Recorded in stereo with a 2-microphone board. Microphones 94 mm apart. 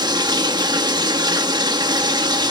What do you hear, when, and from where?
0.0 s running water: 50° right (ahead or behind), 1.5 m